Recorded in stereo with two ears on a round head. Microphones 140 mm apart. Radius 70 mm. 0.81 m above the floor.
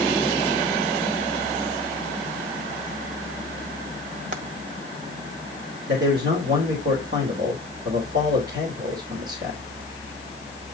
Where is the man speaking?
70° right (ahead or behind), 3 m.